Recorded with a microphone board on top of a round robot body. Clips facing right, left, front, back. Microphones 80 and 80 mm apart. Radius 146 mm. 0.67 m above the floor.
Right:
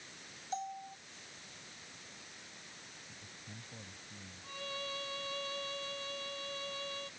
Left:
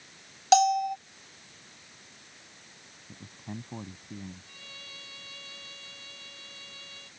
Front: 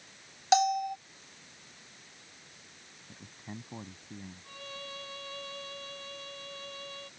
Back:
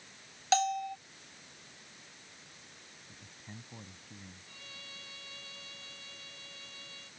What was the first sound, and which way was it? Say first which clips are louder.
A bell: left 20 dB, front 4 dB; 75° left.